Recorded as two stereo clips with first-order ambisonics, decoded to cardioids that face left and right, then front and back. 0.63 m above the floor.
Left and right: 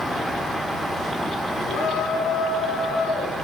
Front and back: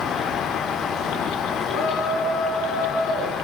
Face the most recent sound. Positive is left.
turn(degrees=45)